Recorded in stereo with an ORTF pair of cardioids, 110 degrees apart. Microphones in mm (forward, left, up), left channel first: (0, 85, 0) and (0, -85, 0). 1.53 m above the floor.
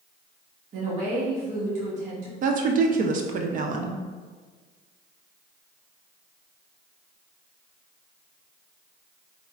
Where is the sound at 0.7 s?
45° right, 1.5 m.